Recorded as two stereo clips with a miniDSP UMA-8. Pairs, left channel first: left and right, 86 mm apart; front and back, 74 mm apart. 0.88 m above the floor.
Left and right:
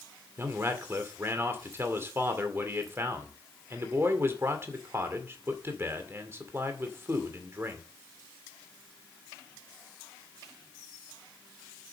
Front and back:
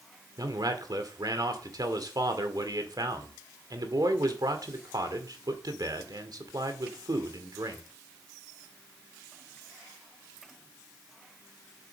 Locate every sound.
0.4 s a man speaking: 150° right, 2 m